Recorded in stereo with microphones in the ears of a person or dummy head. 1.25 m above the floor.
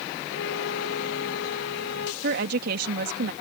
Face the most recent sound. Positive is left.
turn(degrees=-60)  # may be behind; listen again after turning